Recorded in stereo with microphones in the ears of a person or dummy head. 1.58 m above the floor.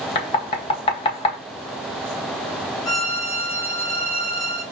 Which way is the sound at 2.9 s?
60° left (ahead or behind).